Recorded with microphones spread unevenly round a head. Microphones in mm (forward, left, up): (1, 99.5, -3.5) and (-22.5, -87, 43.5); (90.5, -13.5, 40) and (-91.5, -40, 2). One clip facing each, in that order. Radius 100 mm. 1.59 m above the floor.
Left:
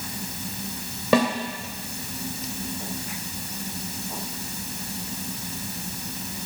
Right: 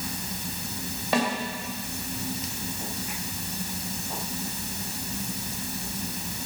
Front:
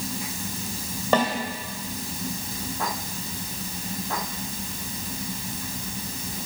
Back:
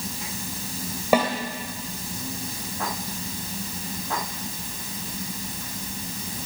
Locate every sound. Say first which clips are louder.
1.1 s a snare drum: left 6 dB, back 2 dB; 100° left, 2 m